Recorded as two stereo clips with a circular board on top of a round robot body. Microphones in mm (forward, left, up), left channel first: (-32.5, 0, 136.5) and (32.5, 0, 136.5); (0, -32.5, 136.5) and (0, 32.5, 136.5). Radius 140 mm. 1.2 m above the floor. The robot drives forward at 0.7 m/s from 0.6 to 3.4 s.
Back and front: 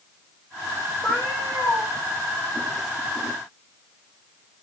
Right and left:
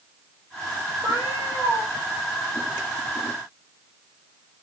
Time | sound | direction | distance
1.0 | a cat meowing | 120° left | 2.5 m